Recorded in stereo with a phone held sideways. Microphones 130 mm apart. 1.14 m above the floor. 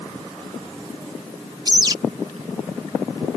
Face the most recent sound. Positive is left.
turn(degrees=-35)  # may be behind; listen again after turning